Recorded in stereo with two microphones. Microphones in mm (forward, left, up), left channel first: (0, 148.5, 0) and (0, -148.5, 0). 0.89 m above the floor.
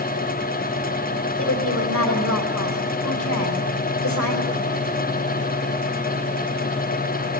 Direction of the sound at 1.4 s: 65° left (ahead or behind).